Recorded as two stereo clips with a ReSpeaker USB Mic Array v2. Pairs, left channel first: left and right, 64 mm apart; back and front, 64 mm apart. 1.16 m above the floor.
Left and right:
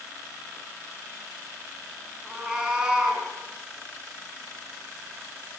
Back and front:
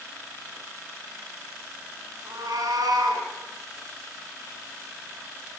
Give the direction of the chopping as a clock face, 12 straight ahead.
No chopping in this recording.